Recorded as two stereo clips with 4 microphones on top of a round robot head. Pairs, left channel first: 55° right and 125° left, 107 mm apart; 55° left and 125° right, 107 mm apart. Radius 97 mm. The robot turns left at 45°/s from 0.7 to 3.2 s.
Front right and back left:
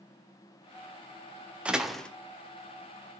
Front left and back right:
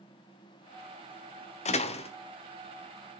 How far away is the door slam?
About 1.2 m.